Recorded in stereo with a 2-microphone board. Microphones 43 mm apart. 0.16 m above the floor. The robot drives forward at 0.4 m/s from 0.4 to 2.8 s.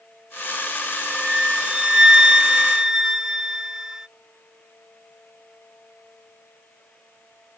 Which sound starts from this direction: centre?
A flute, at 0.9 s.